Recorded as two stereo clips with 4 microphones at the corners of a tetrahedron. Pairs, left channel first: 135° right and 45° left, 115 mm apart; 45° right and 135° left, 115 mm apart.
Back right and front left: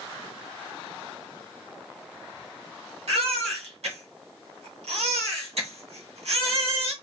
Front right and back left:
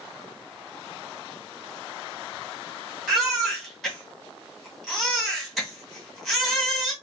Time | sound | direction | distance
3.1 | a baby crying | 45° left | 2.0 m